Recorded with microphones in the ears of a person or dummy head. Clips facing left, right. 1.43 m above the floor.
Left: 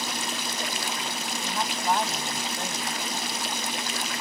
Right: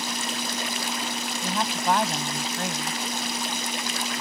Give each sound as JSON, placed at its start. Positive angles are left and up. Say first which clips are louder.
{"t": 1.4, "sound": "a woman speaking", "louder": "right 2 dB", "side_deg": -60}